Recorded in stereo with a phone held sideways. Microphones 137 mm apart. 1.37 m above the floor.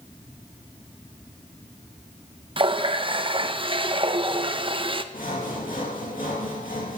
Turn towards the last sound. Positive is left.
turn(degrees=80)